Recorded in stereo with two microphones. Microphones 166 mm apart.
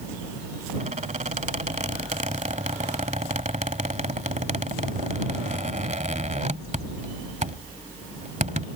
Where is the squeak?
45° right (ahead or behind).